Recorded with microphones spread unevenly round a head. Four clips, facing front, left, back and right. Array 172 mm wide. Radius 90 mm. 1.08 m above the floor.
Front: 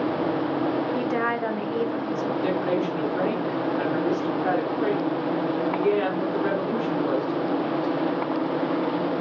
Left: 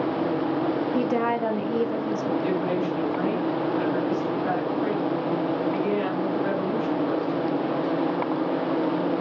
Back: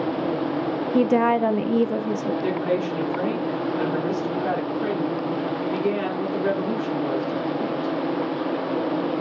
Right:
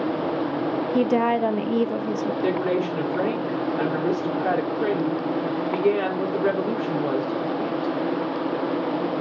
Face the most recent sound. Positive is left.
turn(degrees=-95)